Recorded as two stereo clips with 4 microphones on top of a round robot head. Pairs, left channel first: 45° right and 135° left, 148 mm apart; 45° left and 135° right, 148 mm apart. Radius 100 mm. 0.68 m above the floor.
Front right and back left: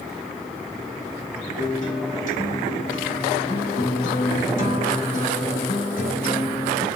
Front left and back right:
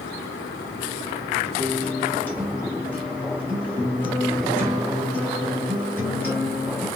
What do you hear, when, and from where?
1.6 s a guitar: 35° right, 1.3 m